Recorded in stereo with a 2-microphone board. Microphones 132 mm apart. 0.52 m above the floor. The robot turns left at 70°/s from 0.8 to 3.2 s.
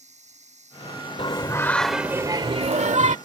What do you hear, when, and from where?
0.0 s running water: 120° right; by 3.3 s 75° left
1.2 s singing: 50° left; by 3.2 s 90° right